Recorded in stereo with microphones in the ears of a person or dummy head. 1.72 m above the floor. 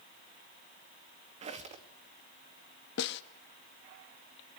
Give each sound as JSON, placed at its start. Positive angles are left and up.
{"t": 1.4, "sound": "a squeak", "side_deg": -30, "distance_m": 2.0}
{"t": 3.0, "sound": "a snare drum", "side_deg": 65, "distance_m": 1.1}